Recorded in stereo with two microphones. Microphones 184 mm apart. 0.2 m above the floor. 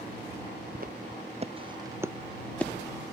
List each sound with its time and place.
0.8 s footsteps: 55° right (ahead or behind); by 2.7 s 10° left (ahead or behind)